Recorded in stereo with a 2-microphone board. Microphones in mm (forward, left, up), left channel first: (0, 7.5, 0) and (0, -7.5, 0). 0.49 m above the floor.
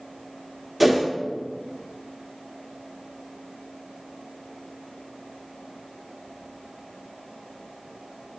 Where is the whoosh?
5° right (ahead or behind), 0.7 m.